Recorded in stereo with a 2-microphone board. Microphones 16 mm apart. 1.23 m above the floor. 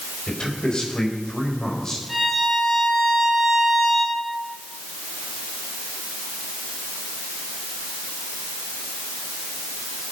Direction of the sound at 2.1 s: 5° left (ahead or behind).